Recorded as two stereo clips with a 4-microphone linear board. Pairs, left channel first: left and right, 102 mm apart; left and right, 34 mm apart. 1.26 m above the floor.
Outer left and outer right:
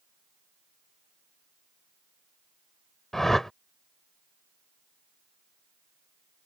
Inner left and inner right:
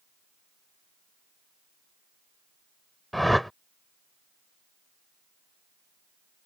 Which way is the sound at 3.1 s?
5° left (ahead or behind).